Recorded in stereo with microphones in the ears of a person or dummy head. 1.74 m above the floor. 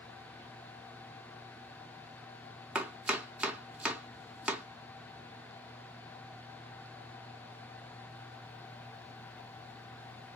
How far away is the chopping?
About 0.6 m.